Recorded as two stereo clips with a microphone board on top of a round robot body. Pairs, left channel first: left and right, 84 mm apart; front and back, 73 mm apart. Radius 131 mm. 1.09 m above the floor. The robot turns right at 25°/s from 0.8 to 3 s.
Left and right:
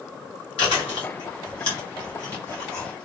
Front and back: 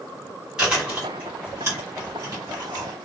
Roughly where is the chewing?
Left.